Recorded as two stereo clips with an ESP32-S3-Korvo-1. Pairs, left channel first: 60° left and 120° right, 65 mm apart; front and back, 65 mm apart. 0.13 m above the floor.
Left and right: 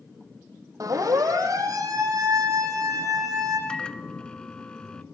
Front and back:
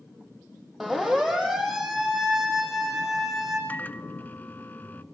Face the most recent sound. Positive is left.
turn(degrees=0)